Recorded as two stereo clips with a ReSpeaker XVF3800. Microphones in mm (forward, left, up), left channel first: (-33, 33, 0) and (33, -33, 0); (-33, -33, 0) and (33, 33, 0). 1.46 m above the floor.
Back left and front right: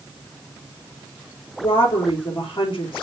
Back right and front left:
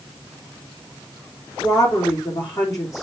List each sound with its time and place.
1.6 s a woman speaking: 170° left, 3.5 m